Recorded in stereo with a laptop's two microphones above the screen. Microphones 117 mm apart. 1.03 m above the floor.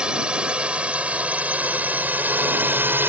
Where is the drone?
10° right (ahead or behind); by 3.1 s 20° right (ahead or behind).